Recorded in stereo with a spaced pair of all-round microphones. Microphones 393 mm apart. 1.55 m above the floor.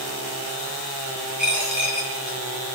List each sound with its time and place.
1.4 s a dropped coin: 50° right (ahead or behind), 8 m